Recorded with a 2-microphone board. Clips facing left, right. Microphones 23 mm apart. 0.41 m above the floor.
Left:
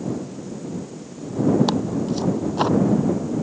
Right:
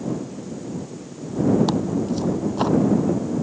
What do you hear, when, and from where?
1.7 s tearing paper: 20° left (ahead or behind)